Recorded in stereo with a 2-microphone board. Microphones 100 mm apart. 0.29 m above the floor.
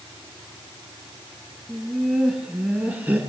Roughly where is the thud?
I don't hear a thud.